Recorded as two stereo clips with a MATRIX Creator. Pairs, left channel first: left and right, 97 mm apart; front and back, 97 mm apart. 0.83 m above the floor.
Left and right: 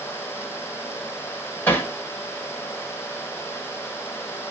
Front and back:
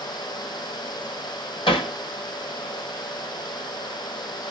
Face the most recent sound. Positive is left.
turn(degrees=20)